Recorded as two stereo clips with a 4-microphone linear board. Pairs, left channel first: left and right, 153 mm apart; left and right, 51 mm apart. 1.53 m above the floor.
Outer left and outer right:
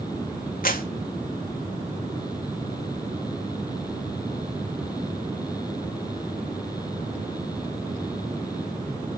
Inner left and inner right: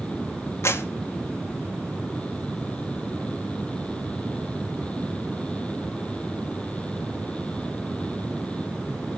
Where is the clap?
70° left (ahead or behind), 2.5 m.